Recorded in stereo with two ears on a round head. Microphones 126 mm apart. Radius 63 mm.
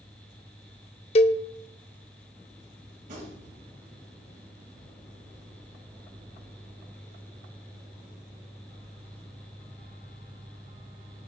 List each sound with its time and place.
1.1 s a cowbell: 45° left (ahead or behind), 0.8 m
3.0 s a gunshot: 55° right (ahead or behind), 8.5 m